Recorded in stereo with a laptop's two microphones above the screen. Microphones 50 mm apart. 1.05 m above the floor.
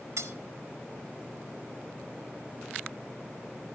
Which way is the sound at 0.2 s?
80° right.